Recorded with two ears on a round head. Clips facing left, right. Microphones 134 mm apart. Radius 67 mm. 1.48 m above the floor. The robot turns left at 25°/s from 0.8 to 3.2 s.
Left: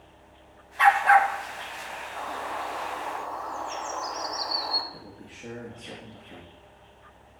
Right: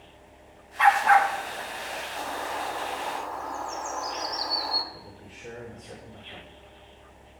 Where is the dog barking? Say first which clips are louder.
Even; 35° left (ahead or behind), 1.0 m.